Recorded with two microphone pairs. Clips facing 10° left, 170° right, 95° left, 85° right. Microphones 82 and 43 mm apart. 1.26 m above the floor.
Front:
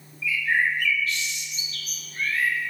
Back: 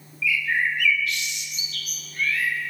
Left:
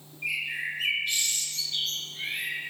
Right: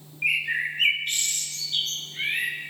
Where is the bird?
45° right, 1.0 m.